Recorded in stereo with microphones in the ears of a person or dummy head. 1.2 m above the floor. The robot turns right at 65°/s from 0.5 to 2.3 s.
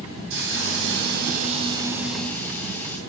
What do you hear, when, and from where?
0.3 s a hiss: 105° right, 2.5 m; by 3.0 s 10° left, 2.5 m